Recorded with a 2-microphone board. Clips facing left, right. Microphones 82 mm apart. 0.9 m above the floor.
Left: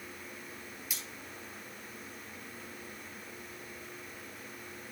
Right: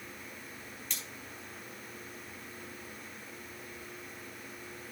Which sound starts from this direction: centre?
Cutlery clinking, at 0.9 s.